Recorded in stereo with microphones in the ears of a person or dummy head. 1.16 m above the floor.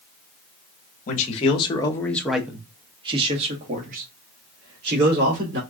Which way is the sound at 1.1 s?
45° left (ahead or behind).